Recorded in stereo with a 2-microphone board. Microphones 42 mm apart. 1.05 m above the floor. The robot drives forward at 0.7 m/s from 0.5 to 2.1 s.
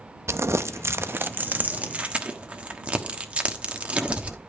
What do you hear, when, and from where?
0.3 s crumpling: 70° right (ahead or behind), 0.6 m; by 4.4 s 30° right (ahead or behind), 1.2 m